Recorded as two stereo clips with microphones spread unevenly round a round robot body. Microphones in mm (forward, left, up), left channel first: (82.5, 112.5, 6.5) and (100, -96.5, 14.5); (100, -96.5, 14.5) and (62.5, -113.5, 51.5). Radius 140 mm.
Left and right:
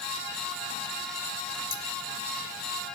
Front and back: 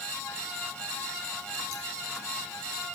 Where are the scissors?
150° left, 1.0 m.